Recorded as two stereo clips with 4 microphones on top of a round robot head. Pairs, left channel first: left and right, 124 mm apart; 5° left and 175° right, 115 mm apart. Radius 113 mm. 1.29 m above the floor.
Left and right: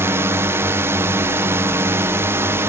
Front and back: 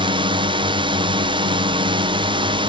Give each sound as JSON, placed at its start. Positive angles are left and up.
{"t": 0.0, "sound": "a drone", "azimuth_deg": -155}